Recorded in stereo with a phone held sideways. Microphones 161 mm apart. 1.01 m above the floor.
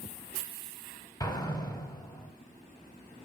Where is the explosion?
25° left (ahead or behind), 1.0 m.